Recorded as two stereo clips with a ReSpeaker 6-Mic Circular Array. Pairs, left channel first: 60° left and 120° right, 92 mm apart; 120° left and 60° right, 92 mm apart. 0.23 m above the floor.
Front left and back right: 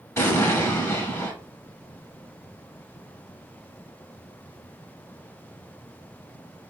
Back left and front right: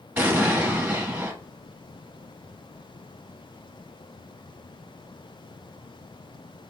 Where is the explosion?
10° left, 0.8 m.